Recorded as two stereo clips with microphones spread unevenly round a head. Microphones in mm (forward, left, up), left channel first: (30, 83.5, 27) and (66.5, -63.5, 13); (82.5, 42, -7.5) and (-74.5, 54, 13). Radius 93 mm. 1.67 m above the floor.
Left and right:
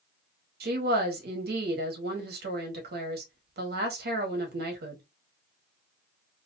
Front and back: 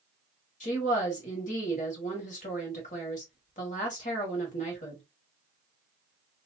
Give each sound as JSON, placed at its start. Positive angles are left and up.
{"t": 0.6, "sound": "a woman speaking", "azimuth_deg": -60, "distance_m": 1.4}